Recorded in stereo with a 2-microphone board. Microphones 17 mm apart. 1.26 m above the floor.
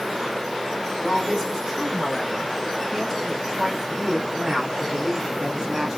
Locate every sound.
1.0 s a woman speaking: 10° left (ahead or behind), 4 m; by 6.0 s 30° right (ahead or behind), 2.5 m